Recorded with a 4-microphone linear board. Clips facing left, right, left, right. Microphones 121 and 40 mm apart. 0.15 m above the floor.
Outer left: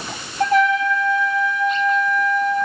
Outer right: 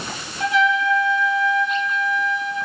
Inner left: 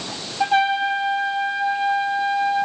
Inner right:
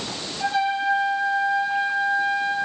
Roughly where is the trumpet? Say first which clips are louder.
Outer left 3 dB, inner left 4 dB; left.